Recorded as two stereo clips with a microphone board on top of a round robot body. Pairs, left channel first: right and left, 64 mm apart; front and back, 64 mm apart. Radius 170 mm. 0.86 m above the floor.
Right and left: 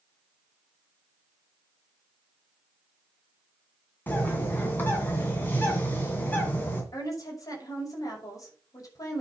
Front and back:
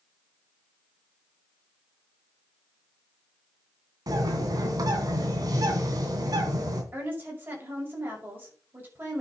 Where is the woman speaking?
125° right, 6 m.